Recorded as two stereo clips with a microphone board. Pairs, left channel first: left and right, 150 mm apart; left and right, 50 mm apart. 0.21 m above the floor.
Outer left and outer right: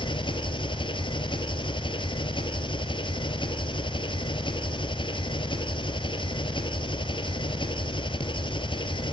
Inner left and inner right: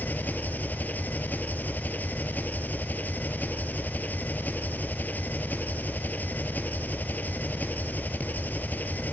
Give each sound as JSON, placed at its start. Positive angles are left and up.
{"t": 0.0, "sound": "an engine running", "side_deg": 35, "distance_m": 1.8}